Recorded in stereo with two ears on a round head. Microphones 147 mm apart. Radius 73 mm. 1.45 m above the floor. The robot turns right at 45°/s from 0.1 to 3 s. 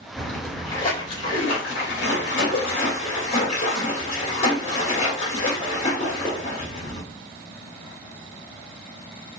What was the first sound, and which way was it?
A splash, 5° left.